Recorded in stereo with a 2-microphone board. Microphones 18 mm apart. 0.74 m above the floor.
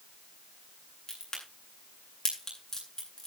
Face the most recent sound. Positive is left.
turn(degrees=30)  # may be behind; listen again after turning